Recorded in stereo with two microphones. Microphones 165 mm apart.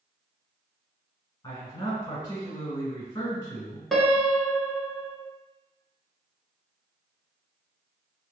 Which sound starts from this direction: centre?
A piano, at 3.9 s.